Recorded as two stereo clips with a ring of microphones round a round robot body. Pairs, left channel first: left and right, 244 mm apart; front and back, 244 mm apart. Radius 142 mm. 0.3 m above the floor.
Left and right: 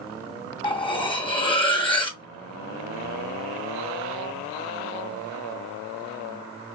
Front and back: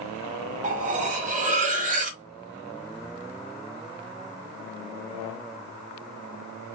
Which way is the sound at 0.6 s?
145° left.